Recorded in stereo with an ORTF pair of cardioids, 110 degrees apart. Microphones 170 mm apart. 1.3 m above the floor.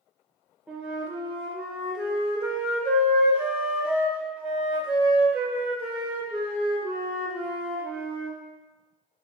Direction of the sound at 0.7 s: 5° right.